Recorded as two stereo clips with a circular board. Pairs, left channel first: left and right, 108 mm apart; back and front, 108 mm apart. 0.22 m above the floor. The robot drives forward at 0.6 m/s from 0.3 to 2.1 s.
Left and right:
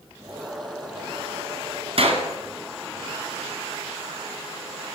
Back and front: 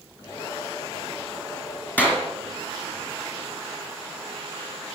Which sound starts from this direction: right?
A clap, at 2.0 s.